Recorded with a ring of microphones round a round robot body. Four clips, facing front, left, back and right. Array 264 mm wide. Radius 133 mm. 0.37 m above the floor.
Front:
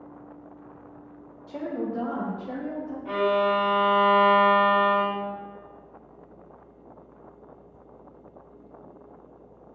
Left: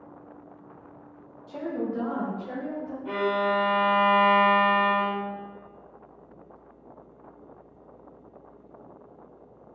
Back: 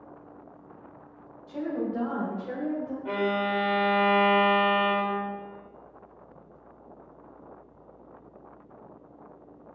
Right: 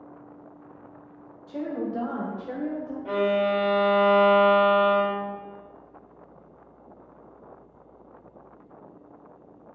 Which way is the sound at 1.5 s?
10° right.